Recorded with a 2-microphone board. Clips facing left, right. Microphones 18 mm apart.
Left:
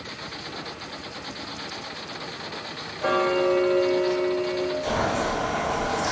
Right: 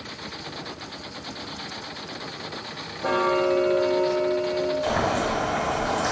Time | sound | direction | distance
3.0 | ticking | 45° left (ahead or behind) | 0.6 m
4.8 | boiling | 50° right (ahead or behind) | 1.2 m